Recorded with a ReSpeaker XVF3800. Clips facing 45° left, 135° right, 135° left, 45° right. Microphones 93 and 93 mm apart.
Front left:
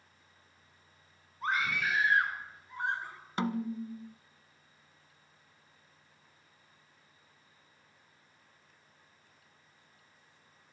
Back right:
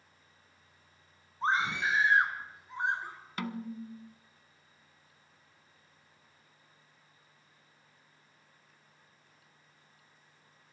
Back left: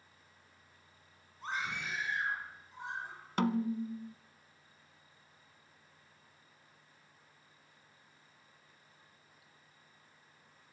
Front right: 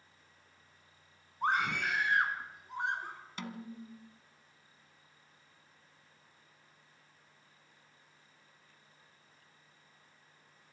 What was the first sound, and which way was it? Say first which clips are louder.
A scream: back right 2 dB, front right 8 dB; 70° right.